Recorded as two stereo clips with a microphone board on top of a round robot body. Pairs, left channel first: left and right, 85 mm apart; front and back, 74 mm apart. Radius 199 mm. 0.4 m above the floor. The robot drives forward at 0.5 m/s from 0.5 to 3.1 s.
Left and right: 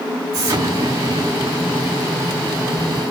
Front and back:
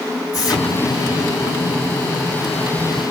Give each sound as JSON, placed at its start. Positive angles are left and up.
{"t": 0.3, "sound": "an explosion", "azimuth_deg": -40, "distance_m": 4.5}